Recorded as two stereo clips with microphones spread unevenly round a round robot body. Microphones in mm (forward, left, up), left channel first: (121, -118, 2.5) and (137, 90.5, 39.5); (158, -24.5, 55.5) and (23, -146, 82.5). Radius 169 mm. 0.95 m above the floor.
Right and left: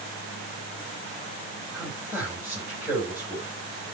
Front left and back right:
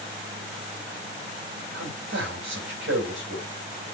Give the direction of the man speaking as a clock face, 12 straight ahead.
6 o'clock.